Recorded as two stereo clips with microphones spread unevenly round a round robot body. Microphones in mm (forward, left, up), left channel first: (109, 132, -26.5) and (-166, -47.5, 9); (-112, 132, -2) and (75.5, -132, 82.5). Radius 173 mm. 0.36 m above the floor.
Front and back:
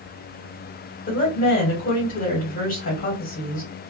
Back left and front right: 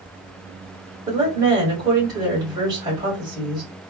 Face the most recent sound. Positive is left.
turn(degrees=35)